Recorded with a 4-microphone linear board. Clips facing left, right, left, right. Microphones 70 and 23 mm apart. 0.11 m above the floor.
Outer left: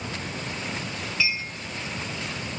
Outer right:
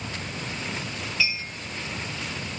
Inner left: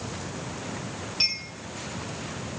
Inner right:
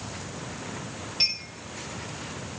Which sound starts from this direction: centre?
A clink, at 1.2 s.